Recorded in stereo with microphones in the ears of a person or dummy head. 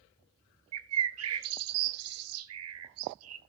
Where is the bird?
80° right, 0.7 m.